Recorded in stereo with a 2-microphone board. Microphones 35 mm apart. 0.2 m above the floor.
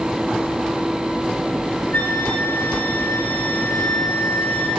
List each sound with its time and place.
1.9 s a flute: 75° left (ahead or behind), 6.5 m